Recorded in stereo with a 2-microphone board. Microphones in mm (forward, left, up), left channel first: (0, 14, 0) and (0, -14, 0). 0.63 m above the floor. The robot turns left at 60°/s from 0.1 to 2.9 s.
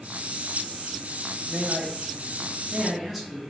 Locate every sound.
1.5 s a man speaking: 45° right (ahead or behind), 0.7 m; by 3.4 s 5° right (ahead or behind), 0.7 m